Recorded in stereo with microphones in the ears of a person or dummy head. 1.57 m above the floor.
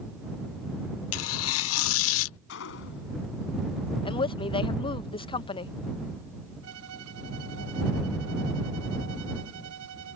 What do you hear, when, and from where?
1.1 s tearing paper: 75° left (ahead or behind)
2.5 s a gunshot: 60° left (ahead or behind)
4.0 s a woman speaking: 25° left (ahead or behind)
6.6 s a violin: 70° right (ahead or behind)